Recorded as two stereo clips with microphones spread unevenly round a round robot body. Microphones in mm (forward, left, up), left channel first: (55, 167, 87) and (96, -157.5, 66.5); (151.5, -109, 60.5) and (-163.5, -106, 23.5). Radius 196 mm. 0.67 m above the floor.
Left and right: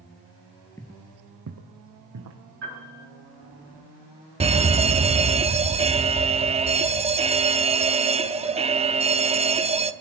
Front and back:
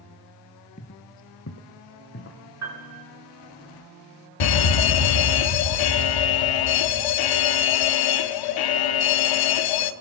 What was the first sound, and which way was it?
Footsteps, 30° left.